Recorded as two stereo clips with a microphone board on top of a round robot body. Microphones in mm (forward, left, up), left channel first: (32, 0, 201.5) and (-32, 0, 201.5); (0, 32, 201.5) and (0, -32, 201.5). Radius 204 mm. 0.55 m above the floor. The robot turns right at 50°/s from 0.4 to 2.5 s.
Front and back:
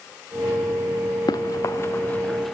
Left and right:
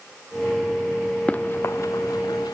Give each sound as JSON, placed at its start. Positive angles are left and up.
{"t": 1.3, "sound": "running footsteps", "azimuth_deg": 20}